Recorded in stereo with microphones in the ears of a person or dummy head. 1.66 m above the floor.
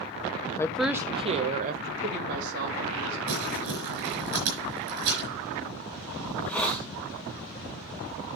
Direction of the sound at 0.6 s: 20° left (ahead or behind).